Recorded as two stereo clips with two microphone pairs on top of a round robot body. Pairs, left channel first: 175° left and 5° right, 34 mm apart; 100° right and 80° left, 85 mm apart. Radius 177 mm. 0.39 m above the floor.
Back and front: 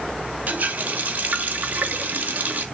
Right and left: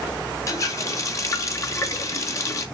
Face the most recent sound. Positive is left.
turn(degrees=-45)